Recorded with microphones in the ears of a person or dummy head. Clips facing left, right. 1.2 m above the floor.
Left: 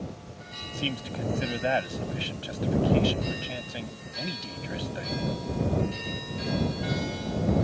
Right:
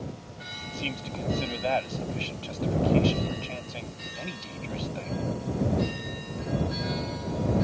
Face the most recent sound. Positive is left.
turn(degrees=15)  # may be behind; listen again after turning